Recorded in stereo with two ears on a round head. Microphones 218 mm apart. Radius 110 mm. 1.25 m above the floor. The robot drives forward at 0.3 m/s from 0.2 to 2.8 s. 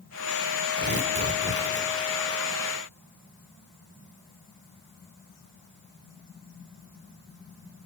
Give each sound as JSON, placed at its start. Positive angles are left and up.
{"t": 0.8, "sound": "tearing paper", "side_deg": -40, "distance_m": 1.6}